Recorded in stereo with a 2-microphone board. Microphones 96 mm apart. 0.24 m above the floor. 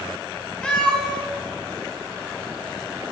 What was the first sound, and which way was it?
A cat meowing, 10° left (ahead or behind).